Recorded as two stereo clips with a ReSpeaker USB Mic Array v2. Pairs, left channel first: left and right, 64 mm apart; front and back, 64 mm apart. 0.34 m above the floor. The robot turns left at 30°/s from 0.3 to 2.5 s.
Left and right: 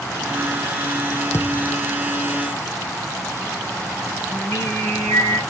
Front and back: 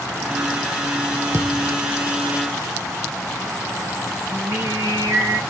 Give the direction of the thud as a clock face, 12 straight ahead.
7 o'clock.